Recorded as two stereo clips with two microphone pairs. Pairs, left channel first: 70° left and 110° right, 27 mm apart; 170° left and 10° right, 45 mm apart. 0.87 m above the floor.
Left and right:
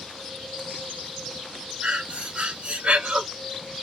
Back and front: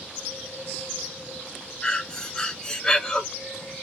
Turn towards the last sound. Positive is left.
turn(degrees=-125)